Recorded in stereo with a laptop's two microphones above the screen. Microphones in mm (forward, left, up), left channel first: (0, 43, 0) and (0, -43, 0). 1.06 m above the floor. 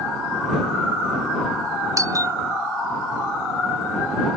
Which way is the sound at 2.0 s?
40° right (ahead or behind).